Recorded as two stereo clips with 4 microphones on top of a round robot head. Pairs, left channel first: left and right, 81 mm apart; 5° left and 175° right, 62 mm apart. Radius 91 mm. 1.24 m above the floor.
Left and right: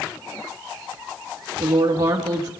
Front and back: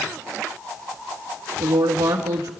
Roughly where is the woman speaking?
Behind right.